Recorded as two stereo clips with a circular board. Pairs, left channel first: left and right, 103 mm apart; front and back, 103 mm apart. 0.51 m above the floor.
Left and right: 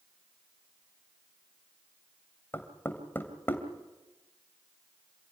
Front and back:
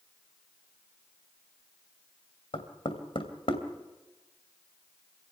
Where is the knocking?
20° left, 2.5 m.